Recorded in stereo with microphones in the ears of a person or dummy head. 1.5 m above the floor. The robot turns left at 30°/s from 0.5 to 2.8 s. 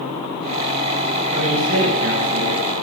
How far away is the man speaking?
About 9.5 m.